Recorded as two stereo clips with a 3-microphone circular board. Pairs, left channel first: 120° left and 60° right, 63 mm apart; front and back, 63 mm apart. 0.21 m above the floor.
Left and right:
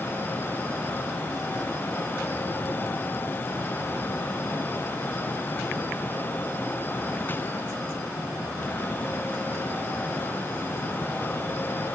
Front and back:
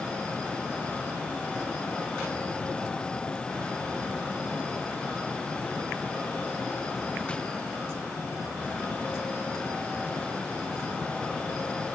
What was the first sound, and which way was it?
Only background noise.